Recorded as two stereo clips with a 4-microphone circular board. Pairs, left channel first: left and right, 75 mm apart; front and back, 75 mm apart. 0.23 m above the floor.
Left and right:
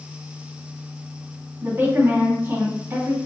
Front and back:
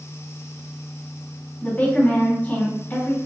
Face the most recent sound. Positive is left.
turn(degrees=-55)